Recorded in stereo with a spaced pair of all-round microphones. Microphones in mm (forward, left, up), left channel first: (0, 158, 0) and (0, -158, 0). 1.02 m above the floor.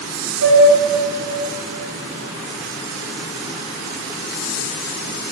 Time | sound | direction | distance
0.4 | a flute | 75° right (ahead or behind) | 1.0 m